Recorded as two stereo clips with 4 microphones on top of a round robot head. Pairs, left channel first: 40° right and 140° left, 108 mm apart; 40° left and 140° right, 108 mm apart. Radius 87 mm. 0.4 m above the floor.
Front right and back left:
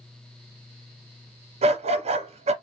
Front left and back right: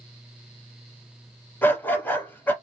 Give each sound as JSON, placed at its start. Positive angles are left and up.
{"t": 1.6, "sound": "a dog barking", "azimuth_deg": 115, "distance_m": 1.0}